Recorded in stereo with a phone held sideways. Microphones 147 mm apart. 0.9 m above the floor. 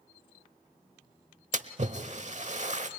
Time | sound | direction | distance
1.5 | a splash | 55° right (ahead or behind) | 1.0 m